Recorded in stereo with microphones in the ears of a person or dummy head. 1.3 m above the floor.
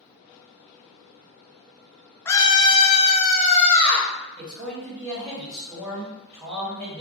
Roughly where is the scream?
Centre.